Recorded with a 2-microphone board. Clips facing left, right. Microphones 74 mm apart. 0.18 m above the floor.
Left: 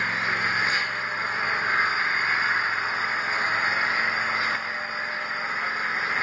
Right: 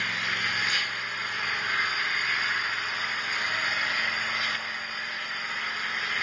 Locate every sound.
0.0 s an engine running: 30° left (ahead or behind), 1.7 m